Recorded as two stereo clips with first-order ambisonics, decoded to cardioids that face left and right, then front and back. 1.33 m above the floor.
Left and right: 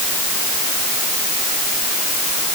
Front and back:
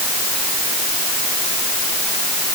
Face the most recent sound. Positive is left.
No sound to turn to.